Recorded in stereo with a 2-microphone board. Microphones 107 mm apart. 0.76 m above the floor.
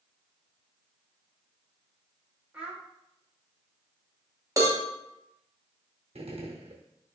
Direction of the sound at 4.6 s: 30° right (ahead or behind).